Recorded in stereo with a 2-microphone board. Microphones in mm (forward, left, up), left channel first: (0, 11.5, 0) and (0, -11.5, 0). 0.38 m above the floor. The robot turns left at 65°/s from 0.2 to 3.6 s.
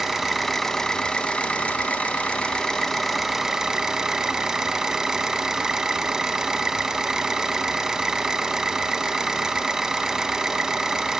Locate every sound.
0.0 s an engine running: 165° right, 0.7 m; by 11.2 s 25° right, 0.7 m